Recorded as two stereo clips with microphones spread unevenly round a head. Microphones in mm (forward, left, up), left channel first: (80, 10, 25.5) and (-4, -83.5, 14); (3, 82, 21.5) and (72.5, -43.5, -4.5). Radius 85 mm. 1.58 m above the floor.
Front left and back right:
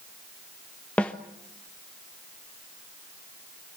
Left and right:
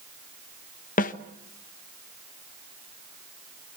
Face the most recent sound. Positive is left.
turn(degrees=130)